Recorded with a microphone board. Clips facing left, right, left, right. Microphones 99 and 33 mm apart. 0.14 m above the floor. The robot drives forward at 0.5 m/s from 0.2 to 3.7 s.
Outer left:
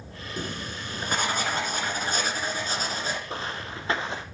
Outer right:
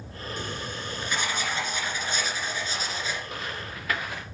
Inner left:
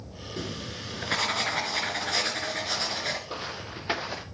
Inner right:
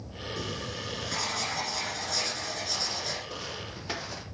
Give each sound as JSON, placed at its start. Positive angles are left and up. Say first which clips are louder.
{"t": 0.4, "sound": "writing", "louder": "outer left 2 dB, inner left 1 dB", "side_deg": 45, "distance_m": 2.5}
{"t": 3.3, "sound": "footsteps", "louder": "outer left 2 dB, inner left 2 dB", "side_deg": 30, "distance_m": 1.2}